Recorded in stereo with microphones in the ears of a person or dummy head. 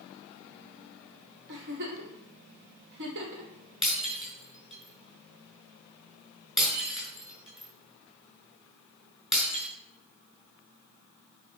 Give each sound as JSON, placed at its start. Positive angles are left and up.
{"t": 1.5, "sound": "a giggle", "side_deg": -60, "distance_m": 3.5}
{"t": 3.8, "sound": "breaking glass", "side_deg": 0, "distance_m": 6.0}